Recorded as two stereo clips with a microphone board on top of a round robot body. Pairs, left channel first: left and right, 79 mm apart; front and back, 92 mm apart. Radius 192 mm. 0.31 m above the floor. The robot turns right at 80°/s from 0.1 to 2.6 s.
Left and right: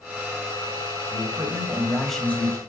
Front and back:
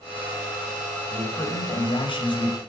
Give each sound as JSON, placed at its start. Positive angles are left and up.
{"t": 1.1, "sound": "a man speaking", "azimuth_deg": -75, "distance_m": 3.0}